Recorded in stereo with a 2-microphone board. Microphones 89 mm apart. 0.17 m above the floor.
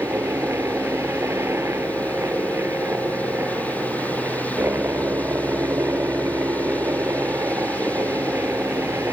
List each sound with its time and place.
0.0 s a helicopter: 30° right (ahead or behind)